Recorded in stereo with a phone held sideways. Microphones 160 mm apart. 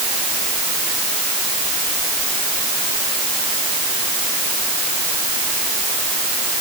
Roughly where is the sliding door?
No sliding door in this recording.